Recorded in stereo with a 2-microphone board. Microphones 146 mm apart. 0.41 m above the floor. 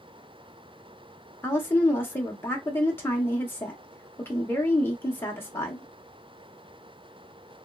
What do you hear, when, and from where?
1.4 s a woman speaking: 15° left (ahead or behind), 0.8 m